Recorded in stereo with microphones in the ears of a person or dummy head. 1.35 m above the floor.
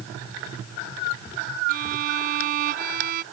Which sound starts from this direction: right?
A violin, at 1.7 s.